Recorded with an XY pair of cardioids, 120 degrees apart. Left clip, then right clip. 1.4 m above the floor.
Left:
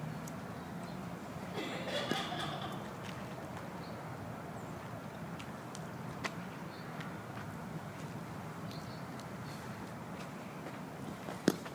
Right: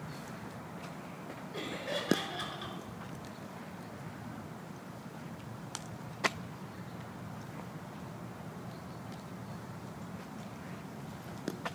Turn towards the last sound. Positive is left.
turn(degrees=-15)